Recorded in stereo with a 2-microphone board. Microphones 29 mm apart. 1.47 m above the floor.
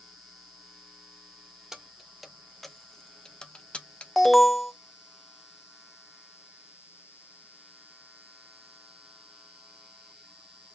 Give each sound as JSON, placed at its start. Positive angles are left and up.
{"t": 1.7, "sound": "keys jangling", "side_deg": -15, "distance_m": 1.1}
{"t": 4.2, "sound": "an alarm", "side_deg": 5, "distance_m": 0.7}